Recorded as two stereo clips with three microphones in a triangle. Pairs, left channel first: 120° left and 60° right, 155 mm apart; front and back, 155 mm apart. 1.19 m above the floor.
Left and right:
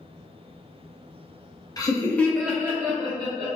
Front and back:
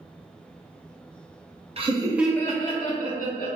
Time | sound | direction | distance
1.8 | laughter | 170° left | 0.6 m